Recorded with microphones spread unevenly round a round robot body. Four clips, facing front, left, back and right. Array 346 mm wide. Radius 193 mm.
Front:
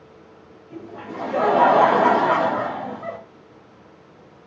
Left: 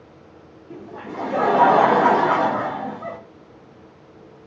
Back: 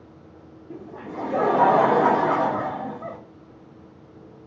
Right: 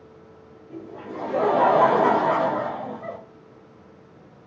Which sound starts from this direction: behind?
Laughter, at 0.7 s.